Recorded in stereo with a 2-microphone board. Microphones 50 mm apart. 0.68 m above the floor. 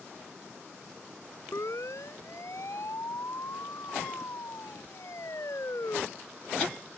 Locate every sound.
1.5 s a siren: 80° left; by 6.0 s 70° left (ahead or behind)